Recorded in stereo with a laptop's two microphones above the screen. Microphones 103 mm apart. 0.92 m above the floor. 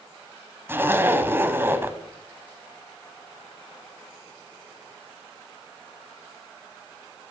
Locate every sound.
0.7 s a zipper: 20° right (ahead or behind), 0.8 m